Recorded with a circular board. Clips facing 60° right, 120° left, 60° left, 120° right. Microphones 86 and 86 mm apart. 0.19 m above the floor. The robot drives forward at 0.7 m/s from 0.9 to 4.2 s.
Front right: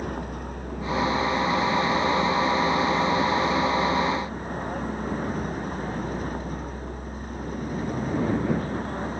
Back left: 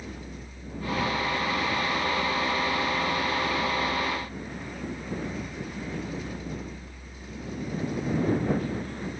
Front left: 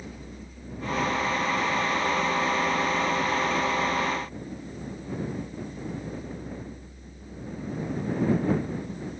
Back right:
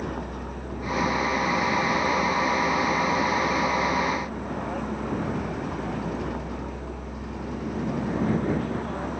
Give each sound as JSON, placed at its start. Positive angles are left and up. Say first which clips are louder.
{"t": 0.0, "sound": "a vehicle", "louder": "front right 9 dB, back right 10 dB", "azimuth_deg": -95}